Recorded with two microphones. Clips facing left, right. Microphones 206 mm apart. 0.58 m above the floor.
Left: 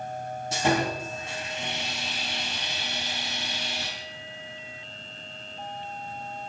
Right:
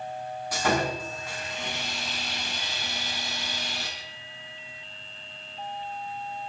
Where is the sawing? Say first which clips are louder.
Left 1 dB; 25° left (ahead or behind), 5 m.